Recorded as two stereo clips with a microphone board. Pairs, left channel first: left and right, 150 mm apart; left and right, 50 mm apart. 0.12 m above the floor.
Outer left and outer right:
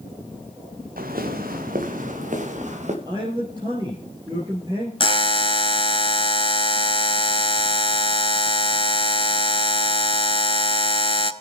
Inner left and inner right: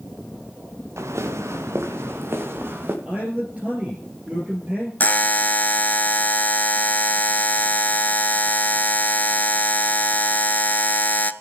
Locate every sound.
1.0 s footsteps: 80° right, 1.3 m; by 3.0 s 55° right (ahead or behind), 2.5 m
3.0 s a man speaking: 30° right (ahead or behind), 2.5 m
5.0 s a buzzer: 40° left (ahead or behind), 0.5 m